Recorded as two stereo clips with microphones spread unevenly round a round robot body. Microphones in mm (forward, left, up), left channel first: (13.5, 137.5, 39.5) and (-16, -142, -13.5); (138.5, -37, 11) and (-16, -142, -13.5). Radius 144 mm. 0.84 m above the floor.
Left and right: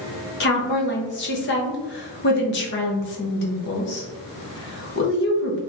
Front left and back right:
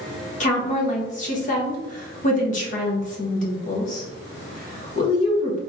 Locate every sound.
0.4 s a woman speaking: 45° left, 0.9 m